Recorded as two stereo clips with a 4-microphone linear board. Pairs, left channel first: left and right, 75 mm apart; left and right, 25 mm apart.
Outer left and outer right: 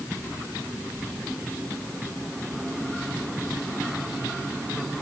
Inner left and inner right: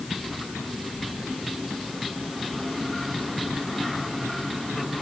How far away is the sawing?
I don't hear sawing.